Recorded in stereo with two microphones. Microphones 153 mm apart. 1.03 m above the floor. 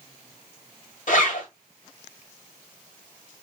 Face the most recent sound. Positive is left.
turn(degrees=65)  # may be behind; listen again after turning